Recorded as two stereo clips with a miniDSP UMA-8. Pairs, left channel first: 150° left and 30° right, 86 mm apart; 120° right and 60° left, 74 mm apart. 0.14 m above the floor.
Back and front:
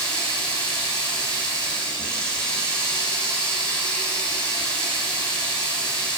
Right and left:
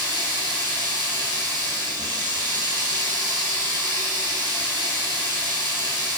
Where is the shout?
I don't hear a shout.